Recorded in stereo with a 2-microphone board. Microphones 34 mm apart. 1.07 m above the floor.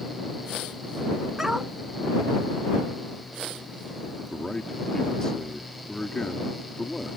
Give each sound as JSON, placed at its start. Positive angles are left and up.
{"t": 1.4, "sound": "a dog barking", "side_deg": -15}
{"t": 4.3, "sound": "a man speaking", "side_deg": 15}